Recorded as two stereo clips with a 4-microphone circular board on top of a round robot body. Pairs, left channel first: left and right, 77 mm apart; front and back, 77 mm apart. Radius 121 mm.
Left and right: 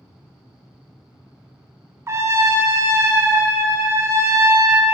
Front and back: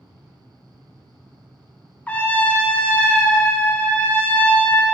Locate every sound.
2.1 s a trumpet: 60° right, 0.6 m